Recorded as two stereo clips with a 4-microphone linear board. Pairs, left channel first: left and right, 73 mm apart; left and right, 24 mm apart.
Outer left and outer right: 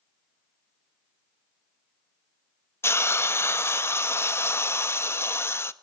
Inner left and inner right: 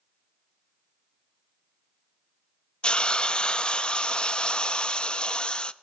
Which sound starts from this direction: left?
A hiss, at 2.8 s.